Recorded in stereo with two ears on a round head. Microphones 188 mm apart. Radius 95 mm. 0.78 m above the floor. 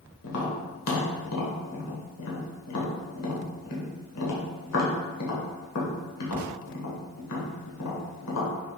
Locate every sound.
0.2 s tapping: 80° left, 1.2 m